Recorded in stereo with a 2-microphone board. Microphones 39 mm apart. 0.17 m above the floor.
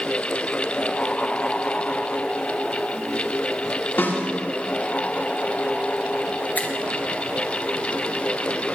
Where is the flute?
I don't hear a flute.